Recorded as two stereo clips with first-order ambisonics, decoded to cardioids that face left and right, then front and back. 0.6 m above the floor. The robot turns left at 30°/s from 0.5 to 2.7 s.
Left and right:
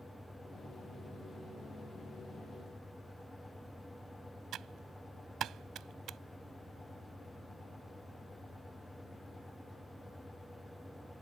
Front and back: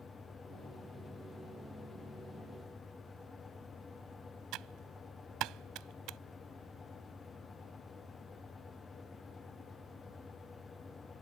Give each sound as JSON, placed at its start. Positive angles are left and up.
{"t": 4.5, "sound": "typing on a keyboard", "azimuth_deg": -140}